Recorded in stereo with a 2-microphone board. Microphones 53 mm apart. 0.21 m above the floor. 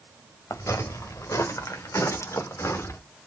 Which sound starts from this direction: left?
Footsteps, at 0.5 s.